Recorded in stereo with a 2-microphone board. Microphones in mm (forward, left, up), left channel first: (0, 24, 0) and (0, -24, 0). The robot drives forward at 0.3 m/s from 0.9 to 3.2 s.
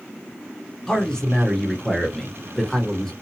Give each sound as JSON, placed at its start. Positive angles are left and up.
{"t": 0.9, "sound": "a man speaking", "side_deg": 15, "distance_m": 1.0}